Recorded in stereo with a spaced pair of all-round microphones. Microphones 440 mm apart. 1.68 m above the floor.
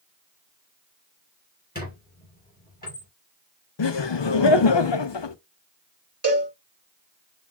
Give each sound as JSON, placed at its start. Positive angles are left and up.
{"t": 1.8, "sound": "a squeak", "side_deg": 20, "distance_m": 2.5}
{"t": 3.8, "sound": "laughter", "side_deg": 70, "distance_m": 0.6}
{"t": 6.2, "sound": "a cowbell", "side_deg": -35, "distance_m": 1.5}